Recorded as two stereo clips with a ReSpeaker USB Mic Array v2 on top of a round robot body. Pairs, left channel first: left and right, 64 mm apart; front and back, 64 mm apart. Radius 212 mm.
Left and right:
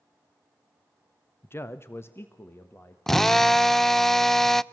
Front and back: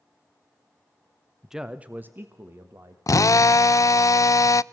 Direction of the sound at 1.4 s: 95° left.